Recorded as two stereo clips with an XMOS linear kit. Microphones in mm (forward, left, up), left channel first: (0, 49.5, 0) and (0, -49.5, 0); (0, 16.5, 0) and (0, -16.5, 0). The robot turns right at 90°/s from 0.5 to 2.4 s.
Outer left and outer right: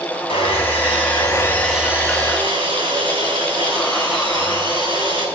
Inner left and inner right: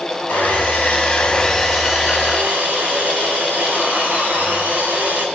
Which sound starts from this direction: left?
Sawing, at 0.3 s.